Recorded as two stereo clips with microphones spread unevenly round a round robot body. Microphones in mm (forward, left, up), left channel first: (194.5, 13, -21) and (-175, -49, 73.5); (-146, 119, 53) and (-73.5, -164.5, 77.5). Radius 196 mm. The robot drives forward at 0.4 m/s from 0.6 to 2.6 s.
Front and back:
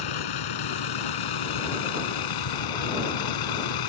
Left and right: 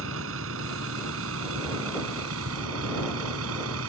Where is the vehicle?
20° right.